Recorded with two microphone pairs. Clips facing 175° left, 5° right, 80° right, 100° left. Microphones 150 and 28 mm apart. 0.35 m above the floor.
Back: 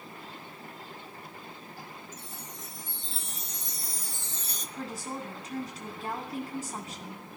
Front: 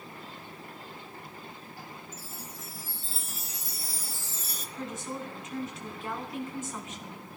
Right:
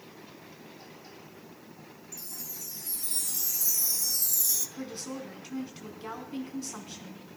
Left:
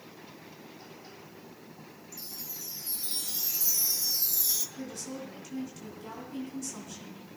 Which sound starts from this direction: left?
A chime, at 2.1 s.